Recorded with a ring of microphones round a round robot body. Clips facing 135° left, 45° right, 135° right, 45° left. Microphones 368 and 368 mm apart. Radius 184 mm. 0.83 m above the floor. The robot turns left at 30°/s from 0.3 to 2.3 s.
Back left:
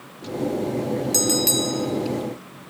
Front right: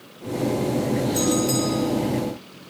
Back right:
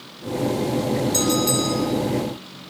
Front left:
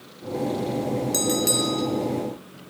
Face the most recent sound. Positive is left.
turn(degrees=90)